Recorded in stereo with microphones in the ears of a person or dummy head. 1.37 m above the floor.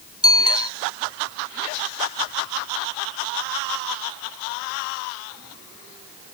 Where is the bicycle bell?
20° left (ahead or behind).